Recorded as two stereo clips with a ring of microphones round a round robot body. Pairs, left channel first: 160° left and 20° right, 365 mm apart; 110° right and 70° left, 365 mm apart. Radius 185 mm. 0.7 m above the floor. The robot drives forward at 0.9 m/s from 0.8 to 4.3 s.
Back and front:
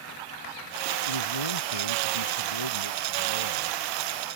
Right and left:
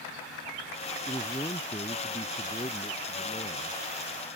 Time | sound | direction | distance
1.1 | a man speaking | 165° left | ?